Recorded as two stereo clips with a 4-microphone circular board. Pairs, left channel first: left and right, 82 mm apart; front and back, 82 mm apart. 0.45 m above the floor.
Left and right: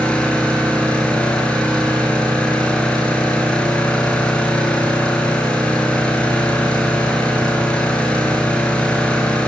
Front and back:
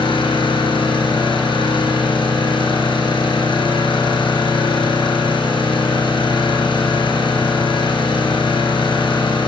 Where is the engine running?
15° left, 5 m.